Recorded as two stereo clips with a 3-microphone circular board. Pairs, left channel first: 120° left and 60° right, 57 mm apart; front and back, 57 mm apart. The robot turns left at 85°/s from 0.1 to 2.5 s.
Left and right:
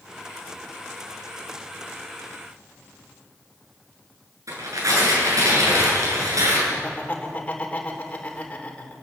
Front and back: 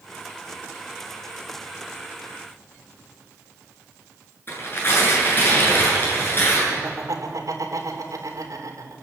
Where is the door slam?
No door slam in this recording.